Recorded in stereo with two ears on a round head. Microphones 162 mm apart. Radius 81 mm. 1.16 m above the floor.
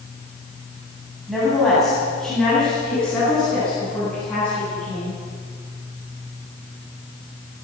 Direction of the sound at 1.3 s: Centre (ahead or behind).